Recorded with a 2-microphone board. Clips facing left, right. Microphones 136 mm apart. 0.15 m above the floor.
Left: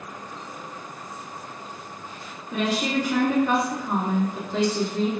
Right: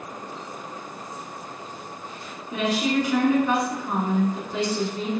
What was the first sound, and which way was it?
A woman speaking, 15° right (ahead or behind).